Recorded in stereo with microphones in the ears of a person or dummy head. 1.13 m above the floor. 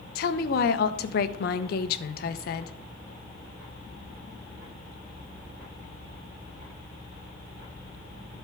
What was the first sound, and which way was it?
A woman speaking, 55° left (ahead or behind).